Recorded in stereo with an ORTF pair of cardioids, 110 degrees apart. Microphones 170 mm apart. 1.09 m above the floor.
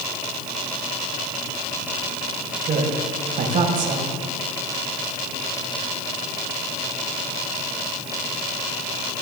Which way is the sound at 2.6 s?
45° right.